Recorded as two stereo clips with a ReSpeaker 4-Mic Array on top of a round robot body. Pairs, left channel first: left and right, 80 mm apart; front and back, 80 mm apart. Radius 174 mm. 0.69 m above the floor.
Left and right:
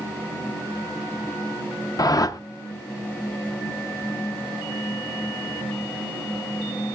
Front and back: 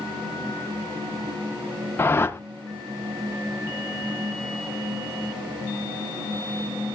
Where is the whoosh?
55° left, 0.9 m.